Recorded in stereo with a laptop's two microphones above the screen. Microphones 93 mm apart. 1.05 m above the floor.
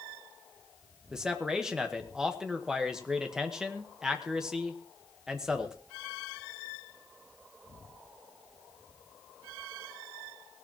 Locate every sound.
1.1 s a man speaking: 5° right (ahead or behind), 1.1 m